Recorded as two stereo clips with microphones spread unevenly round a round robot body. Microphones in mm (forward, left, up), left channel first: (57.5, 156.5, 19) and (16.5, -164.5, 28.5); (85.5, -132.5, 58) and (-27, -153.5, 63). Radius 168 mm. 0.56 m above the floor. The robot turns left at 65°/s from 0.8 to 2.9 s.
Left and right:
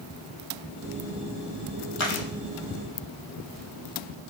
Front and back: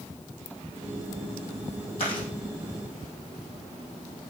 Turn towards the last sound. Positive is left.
turn(degrees=-20)